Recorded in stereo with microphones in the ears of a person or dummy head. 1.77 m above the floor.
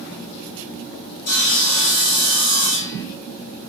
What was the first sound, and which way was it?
Sawing, 55° left (ahead or behind).